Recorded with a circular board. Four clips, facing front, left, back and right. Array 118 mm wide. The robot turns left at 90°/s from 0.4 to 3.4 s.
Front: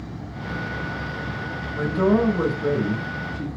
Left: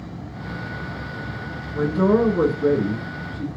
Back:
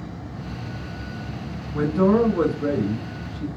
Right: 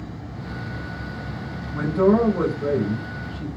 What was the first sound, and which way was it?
A man speaking, 115° right.